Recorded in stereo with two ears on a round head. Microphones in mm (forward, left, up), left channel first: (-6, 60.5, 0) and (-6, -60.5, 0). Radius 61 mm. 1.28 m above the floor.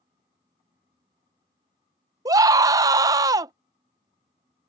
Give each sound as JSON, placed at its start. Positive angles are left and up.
{"t": 2.2, "sound": "a scream", "side_deg": -25}